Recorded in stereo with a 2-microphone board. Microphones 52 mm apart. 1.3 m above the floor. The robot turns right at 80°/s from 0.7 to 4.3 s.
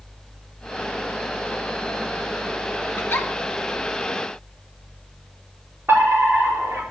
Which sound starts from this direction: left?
A giggle, at 3.0 s.